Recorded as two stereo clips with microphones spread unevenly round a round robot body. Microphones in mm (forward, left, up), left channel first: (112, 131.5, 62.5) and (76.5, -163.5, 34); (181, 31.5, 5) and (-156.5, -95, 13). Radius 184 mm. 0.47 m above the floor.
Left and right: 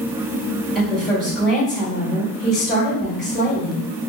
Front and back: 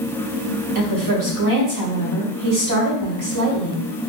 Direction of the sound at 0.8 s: 175° left.